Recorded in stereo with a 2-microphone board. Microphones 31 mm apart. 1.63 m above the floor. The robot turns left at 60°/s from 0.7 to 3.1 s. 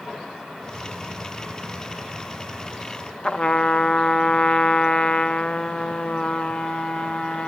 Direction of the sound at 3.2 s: 35° left (ahead or behind).